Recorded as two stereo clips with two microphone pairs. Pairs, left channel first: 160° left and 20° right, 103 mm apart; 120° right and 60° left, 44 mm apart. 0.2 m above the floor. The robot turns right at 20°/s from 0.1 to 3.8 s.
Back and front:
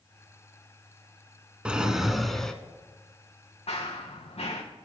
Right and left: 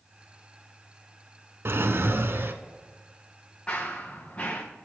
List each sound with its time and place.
1.6 s a drawer: 60° left, 0.5 m; by 2.5 s 75° left, 0.5 m
3.7 s running footsteps: 175° left, 1.3 m; by 4.6 s straight behind, 1.3 m